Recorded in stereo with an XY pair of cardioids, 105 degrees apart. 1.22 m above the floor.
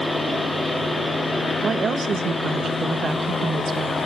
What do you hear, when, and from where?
0.0 s a fan: 5° left, 4.5 m
1.6 s a woman speaking: 45° right, 1.6 m